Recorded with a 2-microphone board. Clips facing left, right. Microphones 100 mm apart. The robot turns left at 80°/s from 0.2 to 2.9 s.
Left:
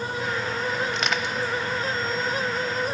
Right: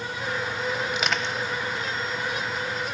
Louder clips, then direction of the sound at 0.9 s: Left 1 dB; 5° right (ahead or behind).